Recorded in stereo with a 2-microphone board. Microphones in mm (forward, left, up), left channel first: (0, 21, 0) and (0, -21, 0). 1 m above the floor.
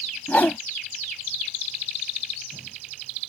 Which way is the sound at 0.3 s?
40° left (ahead or behind).